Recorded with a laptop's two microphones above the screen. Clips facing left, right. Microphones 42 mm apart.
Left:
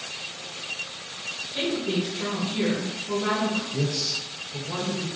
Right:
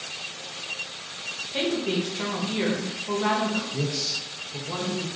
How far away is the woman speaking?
About 0.8 m.